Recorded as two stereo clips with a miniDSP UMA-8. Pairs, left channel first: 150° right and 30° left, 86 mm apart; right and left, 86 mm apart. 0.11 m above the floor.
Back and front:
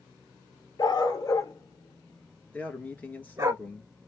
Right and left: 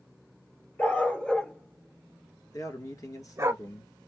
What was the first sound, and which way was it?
A dog barking, 160° right.